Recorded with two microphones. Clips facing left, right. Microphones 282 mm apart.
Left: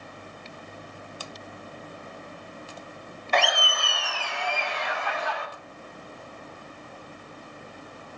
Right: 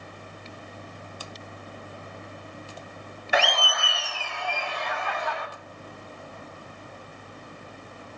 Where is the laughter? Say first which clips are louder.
Even; 10° right (ahead or behind), 0.7 m; by 5.5 s 75° left (ahead or behind), 2.0 m.